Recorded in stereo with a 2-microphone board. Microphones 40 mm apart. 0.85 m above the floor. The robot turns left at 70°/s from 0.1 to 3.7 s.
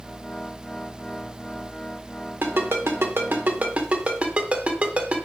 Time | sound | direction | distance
2.4 | a ringtone | 55° right (ahead or behind) | 1.9 m